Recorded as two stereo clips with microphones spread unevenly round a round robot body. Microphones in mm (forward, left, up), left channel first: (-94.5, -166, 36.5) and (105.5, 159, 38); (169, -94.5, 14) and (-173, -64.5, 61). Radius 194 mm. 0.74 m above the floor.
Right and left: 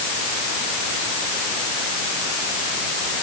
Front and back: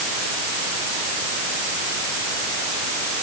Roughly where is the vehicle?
I don't hear a vehicle.